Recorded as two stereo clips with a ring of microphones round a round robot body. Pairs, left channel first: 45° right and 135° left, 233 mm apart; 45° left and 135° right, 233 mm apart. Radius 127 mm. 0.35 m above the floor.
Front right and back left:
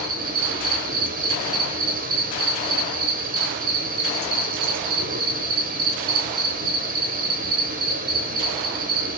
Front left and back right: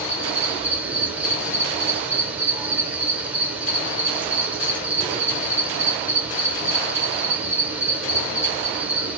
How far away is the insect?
About 1.0 m.